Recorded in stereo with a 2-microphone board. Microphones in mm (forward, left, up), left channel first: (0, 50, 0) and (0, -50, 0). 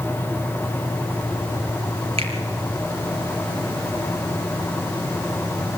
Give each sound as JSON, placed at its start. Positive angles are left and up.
{"t": 2.2, "sound": "a finger snap", "side_deg": -75, "distance_m": 4.5}